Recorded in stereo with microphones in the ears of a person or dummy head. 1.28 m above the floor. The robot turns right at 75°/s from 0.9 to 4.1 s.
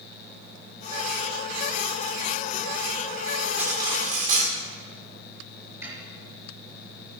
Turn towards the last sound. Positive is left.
turn(degrees=-10)  # may be behind; listen again after turning